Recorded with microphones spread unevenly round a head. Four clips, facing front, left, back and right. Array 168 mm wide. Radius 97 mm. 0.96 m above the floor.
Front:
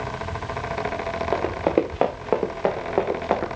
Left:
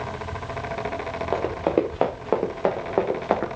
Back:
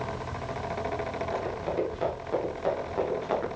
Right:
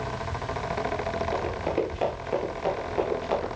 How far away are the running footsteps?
About 3.5 m.